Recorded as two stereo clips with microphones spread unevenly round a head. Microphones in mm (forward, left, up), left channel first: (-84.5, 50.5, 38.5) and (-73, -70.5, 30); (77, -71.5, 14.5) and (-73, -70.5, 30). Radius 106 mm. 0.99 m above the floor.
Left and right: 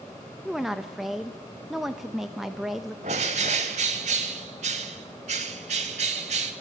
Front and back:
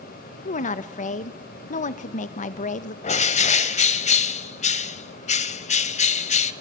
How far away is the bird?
About 1.2 m.